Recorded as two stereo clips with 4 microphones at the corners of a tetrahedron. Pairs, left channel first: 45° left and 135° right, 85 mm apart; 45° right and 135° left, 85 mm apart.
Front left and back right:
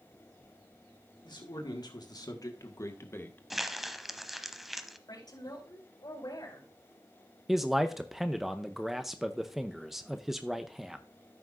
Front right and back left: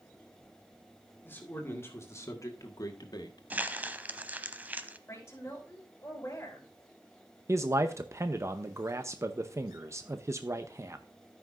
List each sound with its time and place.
1.2 s a man speaking: 20° left, 2 m; by 3.4 s 20° right, 1.3 m
3.5 s crumpling: 140° left, 0.8 m
5.1 s a woman speaking: 15° left, 4.5 m
7.5 s a man speaking: 140° left, 0.6 m